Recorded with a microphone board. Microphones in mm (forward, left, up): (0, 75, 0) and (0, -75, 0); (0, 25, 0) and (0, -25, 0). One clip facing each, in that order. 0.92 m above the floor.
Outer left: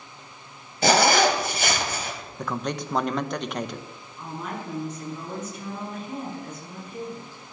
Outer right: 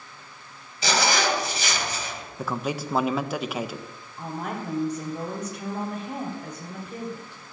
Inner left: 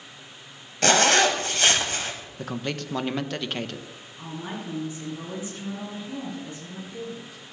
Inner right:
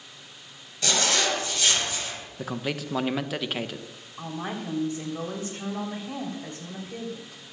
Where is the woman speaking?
80° right, 3.5 m.